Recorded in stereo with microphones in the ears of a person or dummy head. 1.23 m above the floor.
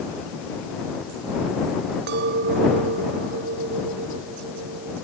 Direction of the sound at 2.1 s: 60° right (ahead or behind).